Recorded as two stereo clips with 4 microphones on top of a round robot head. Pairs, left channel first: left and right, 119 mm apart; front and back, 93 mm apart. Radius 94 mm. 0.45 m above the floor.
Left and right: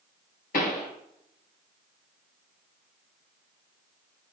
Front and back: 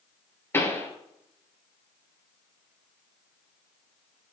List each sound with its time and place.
0.5 s a pop: 65° left, 2.5 m